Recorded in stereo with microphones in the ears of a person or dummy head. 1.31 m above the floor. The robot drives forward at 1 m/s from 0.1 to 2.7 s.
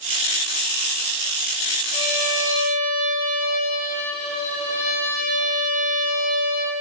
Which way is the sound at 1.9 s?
40° left (ahead or behind).